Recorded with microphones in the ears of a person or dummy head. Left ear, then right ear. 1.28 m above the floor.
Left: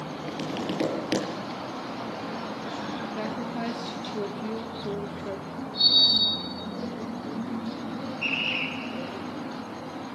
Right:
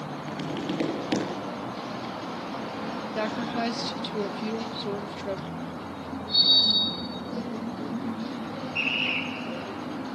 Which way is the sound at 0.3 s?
5° left (ahead or behind).